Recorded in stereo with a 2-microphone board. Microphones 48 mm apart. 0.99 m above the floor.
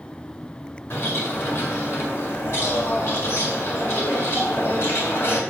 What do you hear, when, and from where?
0.9 s a bird: 60° left (ahead or behind), 2 m